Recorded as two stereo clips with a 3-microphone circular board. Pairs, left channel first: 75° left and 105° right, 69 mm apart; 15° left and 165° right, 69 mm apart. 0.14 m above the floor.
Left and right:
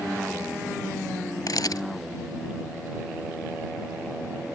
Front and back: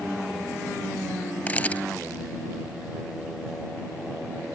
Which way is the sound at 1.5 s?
80° left.